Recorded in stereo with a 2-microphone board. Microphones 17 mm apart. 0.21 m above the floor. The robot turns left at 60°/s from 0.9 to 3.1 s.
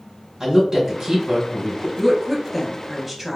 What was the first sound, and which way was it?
A woman speaking, 25° right (ahead or behind).